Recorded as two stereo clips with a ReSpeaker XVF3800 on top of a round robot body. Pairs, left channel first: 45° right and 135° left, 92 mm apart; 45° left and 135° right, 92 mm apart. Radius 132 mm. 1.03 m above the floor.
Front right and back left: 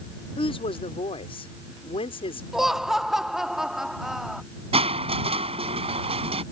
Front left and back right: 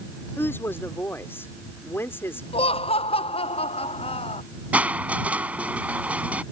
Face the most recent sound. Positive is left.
turn(degrees=150)